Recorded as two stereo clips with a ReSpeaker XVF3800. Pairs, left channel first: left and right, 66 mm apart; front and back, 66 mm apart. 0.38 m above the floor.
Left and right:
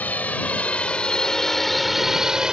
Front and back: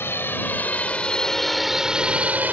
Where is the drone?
35° left; by 2.5 s 155° right.